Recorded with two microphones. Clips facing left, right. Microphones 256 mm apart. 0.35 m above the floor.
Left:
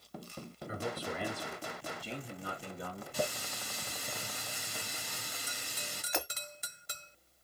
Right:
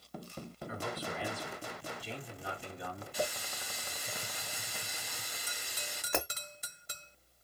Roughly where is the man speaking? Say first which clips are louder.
Left 2 dB; left.